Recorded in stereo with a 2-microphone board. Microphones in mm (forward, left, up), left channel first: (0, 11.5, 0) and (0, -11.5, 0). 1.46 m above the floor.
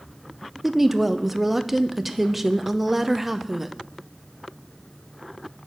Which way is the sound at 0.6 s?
10° right (ahead or behind).